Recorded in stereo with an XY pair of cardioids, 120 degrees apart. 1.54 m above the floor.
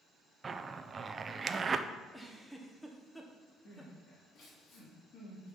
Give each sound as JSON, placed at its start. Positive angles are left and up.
{"t": 0.4, "sound": "a zipper", "azimuth_deg": -30, "distance_m": 0.5}
{"t": 2.1, "sound": "a giggle", "azimuth_deg": 0, "distance_m": 1.2}
{"t": 3.6, "sound": "crying", "azimuth_deg": 55, "distance_m": 3.5}